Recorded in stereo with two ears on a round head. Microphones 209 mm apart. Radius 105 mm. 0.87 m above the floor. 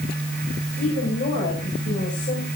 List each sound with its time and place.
0.8 s a woman speaking: 30° left (ahead or behind), 5.5 m